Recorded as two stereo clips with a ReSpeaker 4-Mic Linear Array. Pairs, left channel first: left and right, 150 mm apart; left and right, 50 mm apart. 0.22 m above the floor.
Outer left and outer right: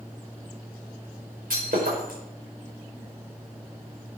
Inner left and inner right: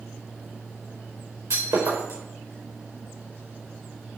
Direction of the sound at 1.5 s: 85° right.